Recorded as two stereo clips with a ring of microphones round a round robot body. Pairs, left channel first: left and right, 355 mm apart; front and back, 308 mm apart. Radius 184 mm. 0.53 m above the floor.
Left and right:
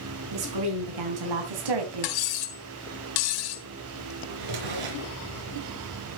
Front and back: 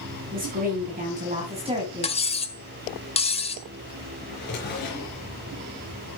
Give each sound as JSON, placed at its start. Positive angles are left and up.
{"t": 0.3, "sound": "a woman speaking", "azimuth_deg": -115, "distance_m": 5.0}
{"t": 2.0, "sound": "cutlery clinking", "azimuth_deg": 70, "distance_m": 1.6}
{"t": 4.3, "sound": "a drawer", "azimuth_deg": -65, "distance_m": 4.0}